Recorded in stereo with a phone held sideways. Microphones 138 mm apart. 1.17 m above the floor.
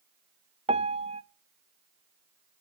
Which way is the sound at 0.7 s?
45° right (ahead or behind).